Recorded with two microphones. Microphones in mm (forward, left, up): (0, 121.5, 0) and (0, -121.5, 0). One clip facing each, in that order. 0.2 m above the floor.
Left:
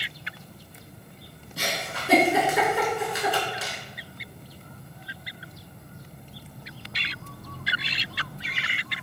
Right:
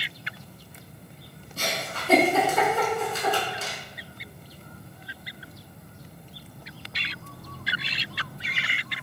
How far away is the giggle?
About 0.8 m.